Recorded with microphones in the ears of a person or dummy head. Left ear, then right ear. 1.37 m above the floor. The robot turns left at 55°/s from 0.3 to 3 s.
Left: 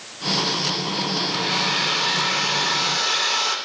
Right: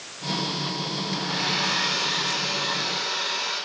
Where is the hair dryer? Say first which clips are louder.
Left 2 dB; 160° right, 3.5 m; by 3.5 s 95° left, 3.5 m.